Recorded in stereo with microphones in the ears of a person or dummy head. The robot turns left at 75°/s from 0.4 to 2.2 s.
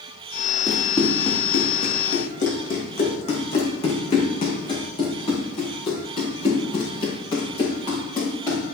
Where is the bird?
No bird in this recording.